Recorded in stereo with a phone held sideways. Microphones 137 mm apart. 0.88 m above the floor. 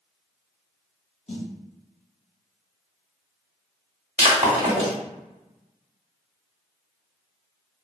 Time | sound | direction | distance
1.3 | a snare drum | 55° left (ahead or behind) | 0.6 m
4.2 | breaking glass | 50° right (ahead or behind) | 1.1 m